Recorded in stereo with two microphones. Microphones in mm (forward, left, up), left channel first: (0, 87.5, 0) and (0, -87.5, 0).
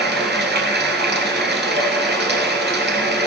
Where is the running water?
80° right, 1.7 m.